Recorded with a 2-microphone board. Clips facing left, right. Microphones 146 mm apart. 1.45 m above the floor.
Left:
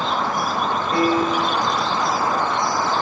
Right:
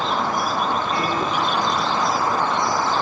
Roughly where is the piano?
Left.